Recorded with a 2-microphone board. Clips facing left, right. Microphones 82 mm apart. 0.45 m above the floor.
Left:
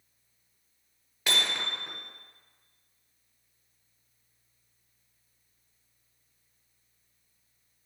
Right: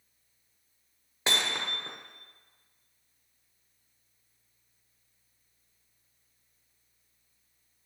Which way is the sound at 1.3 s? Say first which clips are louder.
Even; 30° right (ahead or behind).